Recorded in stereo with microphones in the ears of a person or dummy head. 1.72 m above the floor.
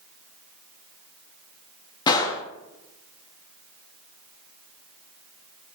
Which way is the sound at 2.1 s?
20° left (ahead or behind).